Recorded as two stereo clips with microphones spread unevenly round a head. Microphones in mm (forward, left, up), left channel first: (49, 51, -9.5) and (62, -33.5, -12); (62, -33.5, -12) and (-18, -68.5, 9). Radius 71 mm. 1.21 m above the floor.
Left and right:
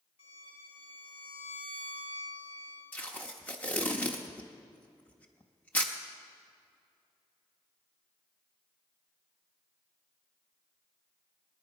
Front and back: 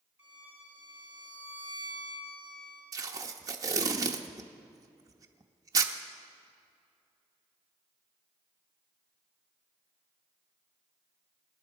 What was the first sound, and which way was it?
A violin, 100° left.